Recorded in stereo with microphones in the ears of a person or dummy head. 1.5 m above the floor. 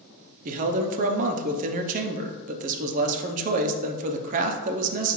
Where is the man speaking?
45° right (ahead or behind), 0.6 m.